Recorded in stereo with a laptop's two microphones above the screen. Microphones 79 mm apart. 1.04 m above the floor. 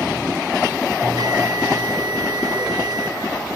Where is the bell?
55° right (ahead or behind), 1.8 m.